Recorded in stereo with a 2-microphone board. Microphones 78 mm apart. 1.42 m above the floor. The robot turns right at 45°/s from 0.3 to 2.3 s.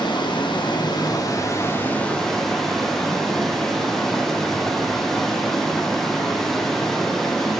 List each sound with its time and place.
0.0 s running water: 85° left, 0.8 m; by 7.6 s 175° left, 0.8 m